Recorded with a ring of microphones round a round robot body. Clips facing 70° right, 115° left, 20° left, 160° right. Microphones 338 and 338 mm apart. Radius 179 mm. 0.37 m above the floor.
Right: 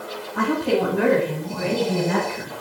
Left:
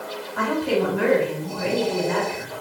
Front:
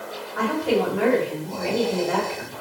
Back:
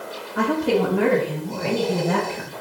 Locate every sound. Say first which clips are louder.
0.3 s a woman speaking: right 1 dB, back 2 dB; 110° right, 6.5 m; by 2.6 s 100° right, 8.5 m